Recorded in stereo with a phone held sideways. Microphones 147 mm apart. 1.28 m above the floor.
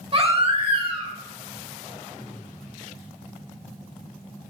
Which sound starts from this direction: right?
A baby crying, at 0.1 s.